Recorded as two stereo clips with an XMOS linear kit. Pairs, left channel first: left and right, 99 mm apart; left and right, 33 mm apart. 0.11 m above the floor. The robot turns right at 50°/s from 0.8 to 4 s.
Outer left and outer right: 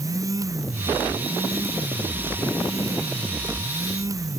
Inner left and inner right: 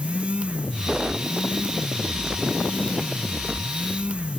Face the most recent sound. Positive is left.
No sound to turn to.